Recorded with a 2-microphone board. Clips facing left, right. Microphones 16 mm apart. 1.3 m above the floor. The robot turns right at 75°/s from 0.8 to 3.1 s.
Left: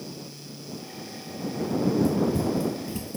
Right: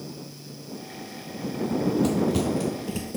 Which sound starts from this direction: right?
Running footsteps, at 1.6 s.